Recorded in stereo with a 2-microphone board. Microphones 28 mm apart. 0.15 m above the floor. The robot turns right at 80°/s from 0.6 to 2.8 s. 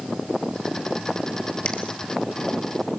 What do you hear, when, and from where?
1.6 s a finger snap: 30° left (ahead or behind), 2.5 m; by 1.8 s 20° left (ahead or behind), 2.5 m